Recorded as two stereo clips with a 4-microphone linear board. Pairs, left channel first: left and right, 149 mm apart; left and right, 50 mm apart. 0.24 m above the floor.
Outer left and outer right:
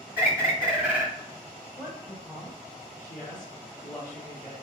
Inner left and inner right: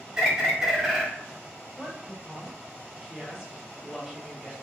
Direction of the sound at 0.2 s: 15° right (ahead or behind).